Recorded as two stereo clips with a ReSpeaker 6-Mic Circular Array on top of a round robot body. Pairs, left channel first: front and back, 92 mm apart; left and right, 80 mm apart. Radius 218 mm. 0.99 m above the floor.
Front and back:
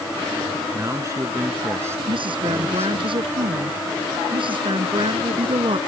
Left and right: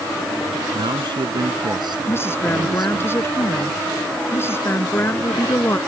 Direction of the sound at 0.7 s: 120° right.